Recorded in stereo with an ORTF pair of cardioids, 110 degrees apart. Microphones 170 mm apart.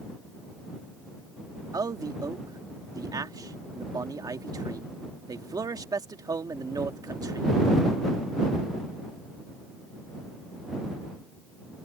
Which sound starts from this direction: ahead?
A man speaking, at 1.7 s.